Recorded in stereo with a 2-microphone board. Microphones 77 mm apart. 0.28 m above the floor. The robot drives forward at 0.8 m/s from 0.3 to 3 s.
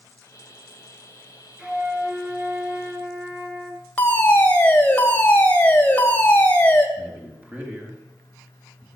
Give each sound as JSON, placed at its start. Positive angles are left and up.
{"t": 1.6, "sound": "a flute", "side_deg": -15, "distance_m": 3.5}
{"t": 4.0, "sound": "a fire alarm", "side_deg": 20, "distance_m": 2.0}
{"t": 7.0, "sound": "a man speaking", "side_deg": -20, "distance_m": 4.0}